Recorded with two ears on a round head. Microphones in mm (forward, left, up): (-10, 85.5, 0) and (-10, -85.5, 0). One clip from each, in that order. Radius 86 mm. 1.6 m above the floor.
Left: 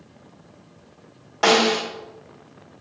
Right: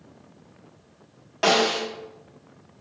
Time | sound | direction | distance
1.4 | a snare drum | 5° right (ahead or behind) | 1.5 m